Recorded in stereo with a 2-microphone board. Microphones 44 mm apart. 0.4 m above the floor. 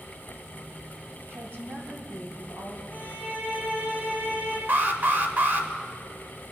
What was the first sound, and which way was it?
A woman speaking, 50° right (ahead or behind).